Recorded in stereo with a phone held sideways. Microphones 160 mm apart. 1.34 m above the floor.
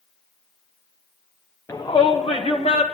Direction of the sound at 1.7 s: 15° left (ahead or behind).